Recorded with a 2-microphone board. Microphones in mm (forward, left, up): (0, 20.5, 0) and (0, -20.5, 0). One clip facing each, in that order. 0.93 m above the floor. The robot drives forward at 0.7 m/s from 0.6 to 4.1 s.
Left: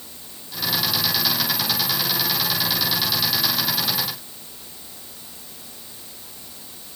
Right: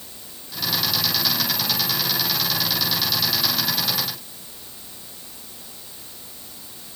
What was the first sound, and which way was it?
Only background noise.